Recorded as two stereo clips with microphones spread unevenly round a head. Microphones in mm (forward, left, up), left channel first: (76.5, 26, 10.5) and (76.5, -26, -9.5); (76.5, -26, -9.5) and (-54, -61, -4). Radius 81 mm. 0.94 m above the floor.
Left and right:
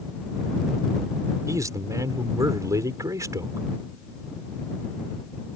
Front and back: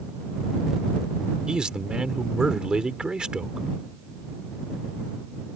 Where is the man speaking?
80° right.